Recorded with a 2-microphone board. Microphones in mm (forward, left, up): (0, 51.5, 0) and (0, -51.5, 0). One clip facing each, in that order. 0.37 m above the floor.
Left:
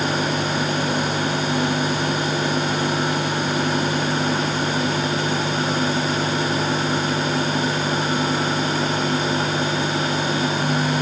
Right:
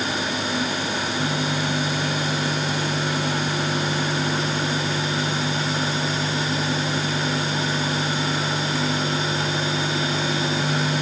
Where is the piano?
No piano in this recording.